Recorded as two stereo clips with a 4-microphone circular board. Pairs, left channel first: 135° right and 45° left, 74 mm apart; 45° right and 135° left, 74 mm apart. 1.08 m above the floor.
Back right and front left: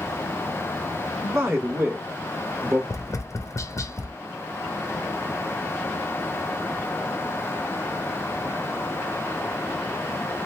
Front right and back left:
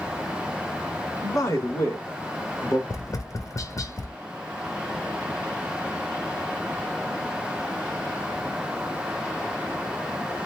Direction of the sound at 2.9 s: 90° right.